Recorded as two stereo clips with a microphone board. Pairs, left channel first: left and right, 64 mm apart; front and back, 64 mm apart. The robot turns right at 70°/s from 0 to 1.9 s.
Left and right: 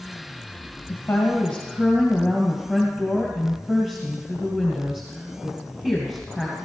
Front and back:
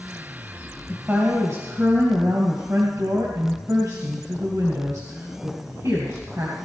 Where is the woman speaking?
120° left, 2.5 m; by 6.5 s 170° right, 2.5 m.